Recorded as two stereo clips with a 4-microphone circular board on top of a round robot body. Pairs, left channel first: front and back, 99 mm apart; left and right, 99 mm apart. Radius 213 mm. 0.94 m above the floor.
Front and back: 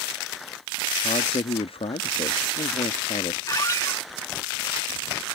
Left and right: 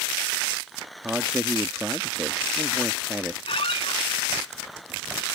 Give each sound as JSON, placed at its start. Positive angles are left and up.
{"t": 1.0, "sound": "a man speaking", "azimuth_deg": -15}
{"t": 3.5, "sound": "a squeak", "azimuth_deg": 60}